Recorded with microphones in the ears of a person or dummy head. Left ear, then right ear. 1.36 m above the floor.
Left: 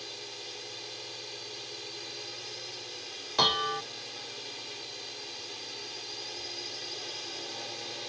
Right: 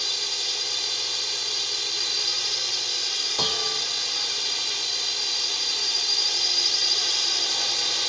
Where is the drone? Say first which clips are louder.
Right 15 dB; 55° right (ahead or behind).